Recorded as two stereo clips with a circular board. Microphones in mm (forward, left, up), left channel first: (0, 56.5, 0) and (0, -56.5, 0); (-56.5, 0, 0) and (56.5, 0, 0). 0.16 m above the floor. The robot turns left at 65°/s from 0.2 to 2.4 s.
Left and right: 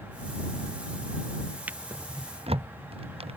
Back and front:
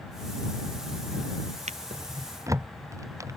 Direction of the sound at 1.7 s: 15° right.